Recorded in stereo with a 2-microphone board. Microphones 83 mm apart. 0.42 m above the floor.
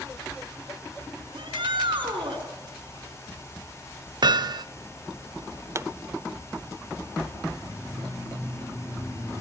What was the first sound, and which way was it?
A shout, 75° right (ahead or behind).